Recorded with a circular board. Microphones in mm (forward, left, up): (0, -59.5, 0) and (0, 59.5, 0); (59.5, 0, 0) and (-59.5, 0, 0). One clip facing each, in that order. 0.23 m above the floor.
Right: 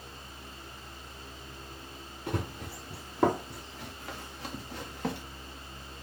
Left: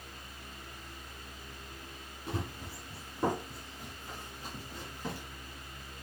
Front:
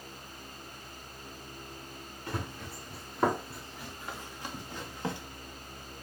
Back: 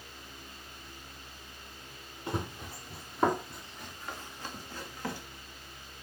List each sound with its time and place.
2.3 s running footsteps: 110° right, 2 m; by 5.2 s 70° right, 3 m